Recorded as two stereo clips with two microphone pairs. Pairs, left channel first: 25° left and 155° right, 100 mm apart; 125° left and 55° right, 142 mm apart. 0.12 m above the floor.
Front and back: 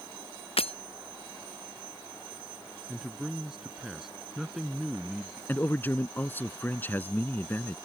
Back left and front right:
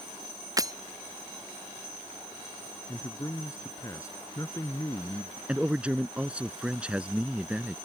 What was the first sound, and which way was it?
Breaking glass, 10° left.